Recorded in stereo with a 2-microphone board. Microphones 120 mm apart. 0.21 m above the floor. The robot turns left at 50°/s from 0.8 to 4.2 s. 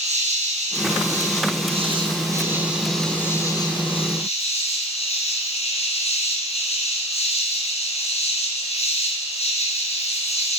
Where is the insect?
75° right, 4 m; by 10.6 s 115° left, 4 m.